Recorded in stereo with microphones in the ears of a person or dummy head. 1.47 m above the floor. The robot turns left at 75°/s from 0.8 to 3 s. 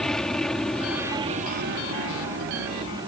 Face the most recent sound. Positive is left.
turn(degrees=-160)